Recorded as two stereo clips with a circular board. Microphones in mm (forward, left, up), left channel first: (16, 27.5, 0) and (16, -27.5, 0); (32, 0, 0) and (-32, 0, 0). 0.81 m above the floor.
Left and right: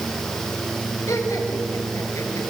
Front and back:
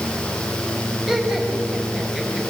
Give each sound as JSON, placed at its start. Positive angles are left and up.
{"t": 1.1, "sound": "laughter", "azimuth_deg": 100, "distance_m": 5.5}